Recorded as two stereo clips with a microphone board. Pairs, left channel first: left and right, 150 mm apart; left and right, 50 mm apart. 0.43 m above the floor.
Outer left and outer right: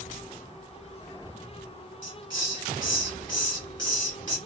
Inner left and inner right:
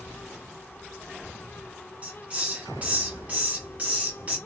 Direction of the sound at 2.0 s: 30° right (ahead or behind).